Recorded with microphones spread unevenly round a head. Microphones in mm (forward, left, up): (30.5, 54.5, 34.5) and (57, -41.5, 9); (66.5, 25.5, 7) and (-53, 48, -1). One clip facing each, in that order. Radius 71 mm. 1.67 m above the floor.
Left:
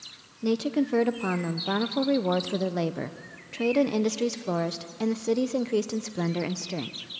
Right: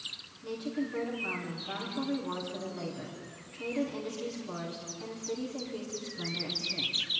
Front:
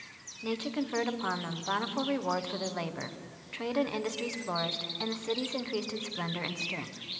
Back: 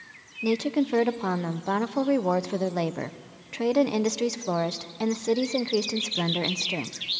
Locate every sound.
0.4 s a woman speaking: 120° left, 0.9 m